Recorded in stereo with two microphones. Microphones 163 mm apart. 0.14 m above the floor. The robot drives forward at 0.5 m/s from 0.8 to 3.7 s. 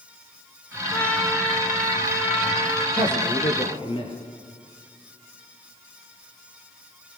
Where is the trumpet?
10° left (ahead or behind), 8 m.